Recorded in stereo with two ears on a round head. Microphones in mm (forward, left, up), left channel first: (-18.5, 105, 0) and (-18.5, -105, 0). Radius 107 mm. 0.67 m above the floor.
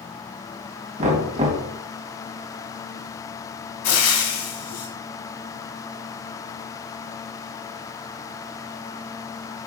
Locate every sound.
1.0 s knocking: 30° right (ahead or behind), 3.5 m
3.8 s frying: 80° left, 3.5 m